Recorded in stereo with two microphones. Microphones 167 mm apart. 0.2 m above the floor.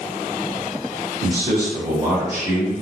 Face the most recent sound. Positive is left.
turn(degrees=-20)  # may be behind; listen again after turning